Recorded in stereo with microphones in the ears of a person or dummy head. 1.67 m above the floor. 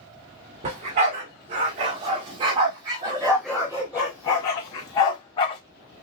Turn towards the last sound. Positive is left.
turn(degrees=30)  # may be behind; listen again after turning